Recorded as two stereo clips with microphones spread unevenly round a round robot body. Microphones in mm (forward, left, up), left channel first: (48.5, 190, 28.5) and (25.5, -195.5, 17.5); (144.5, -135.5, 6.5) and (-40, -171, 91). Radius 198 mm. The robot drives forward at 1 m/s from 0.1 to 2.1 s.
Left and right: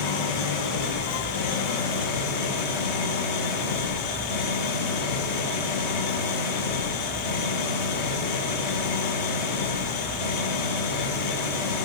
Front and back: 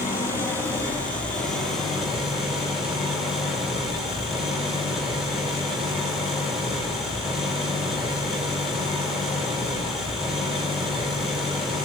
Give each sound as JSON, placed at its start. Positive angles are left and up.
{"t": 0.0, "sound": "an engine running", "azimuth_deg": 85, "distance_m": 5.5}